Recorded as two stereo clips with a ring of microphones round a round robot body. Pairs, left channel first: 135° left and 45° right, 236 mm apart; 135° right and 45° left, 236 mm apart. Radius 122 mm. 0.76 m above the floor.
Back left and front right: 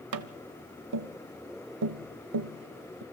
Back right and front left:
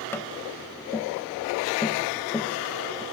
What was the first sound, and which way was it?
Tapping, 55° right.